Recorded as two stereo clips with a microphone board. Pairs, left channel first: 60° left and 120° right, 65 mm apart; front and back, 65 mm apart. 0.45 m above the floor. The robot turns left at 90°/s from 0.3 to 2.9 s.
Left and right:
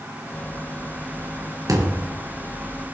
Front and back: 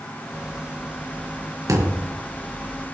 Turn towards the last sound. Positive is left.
turn(degrees=105)